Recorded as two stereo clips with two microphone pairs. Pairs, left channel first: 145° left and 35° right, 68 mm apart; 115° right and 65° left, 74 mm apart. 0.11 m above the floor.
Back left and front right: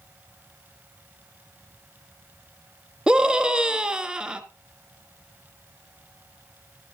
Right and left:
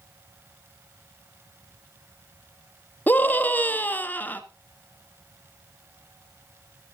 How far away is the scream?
About 1.2 m.